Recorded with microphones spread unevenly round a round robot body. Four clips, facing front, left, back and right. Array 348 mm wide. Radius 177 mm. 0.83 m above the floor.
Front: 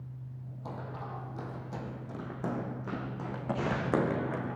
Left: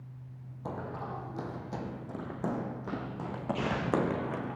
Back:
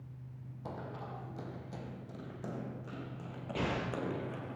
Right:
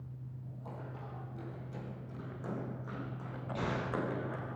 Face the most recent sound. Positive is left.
turn(degrees=175)